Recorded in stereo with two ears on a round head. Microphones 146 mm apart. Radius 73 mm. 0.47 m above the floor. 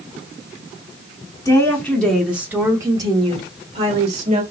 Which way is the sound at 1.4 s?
20° left (ahead or behind).